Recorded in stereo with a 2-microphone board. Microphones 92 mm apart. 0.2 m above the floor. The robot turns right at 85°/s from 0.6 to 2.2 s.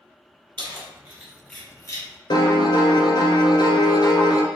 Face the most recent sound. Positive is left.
turn(degrees=55)  # may be behind; listen again after turning